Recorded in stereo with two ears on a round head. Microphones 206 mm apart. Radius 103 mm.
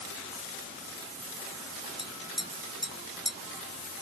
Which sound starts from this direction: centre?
Tapping, at 2.0 s.